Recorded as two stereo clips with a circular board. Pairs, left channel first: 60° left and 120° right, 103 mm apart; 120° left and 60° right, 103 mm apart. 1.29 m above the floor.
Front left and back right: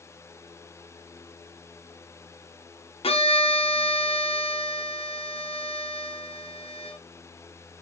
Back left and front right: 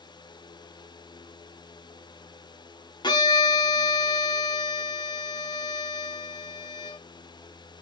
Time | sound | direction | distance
3.0 | a violin | 80° left | 0.8 m